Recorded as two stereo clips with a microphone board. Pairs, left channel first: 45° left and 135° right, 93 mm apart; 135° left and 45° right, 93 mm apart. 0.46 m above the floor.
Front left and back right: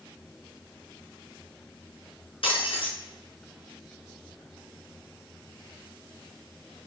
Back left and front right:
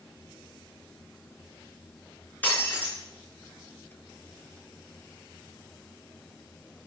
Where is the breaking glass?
65° left, 4.5 m.